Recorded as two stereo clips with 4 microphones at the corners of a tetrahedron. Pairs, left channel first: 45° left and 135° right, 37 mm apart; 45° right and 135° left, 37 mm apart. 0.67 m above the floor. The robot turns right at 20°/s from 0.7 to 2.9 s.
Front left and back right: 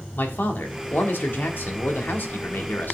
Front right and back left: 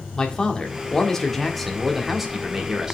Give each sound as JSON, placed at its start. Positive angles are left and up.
{"t": 0.1, "sound": "a man speaking", "azimuth_deg": 25, "distance_m": 1.3}